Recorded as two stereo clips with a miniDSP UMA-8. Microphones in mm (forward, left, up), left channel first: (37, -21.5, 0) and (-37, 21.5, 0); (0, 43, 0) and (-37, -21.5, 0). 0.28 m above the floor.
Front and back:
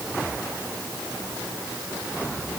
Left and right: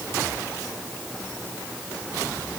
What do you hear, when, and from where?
Only background noise.